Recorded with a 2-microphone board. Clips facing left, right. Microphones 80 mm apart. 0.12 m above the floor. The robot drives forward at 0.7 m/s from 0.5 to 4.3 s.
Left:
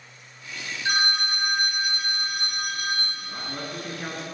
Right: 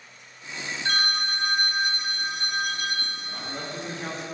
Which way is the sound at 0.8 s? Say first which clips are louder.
Left 2 dB; 15° left (ahead or behind).